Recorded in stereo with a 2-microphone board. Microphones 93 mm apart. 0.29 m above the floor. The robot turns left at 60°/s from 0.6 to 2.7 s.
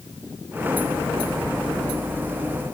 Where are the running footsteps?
No running footsteps in this recording.